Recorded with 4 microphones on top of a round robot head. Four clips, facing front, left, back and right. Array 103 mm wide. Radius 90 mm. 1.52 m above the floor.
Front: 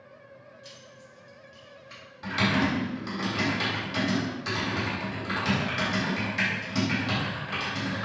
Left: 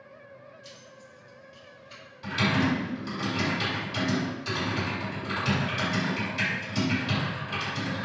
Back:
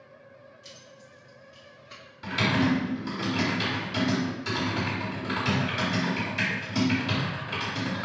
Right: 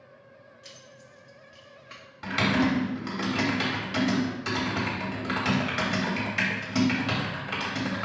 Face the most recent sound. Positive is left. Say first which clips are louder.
# right 1 dB, back 1 dB
turn(degrees=-85)